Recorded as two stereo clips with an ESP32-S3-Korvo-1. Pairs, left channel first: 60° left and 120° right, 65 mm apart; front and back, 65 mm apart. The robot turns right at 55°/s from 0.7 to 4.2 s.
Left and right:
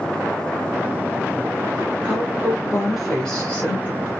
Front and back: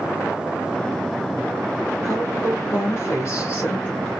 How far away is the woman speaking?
About 1.4 m.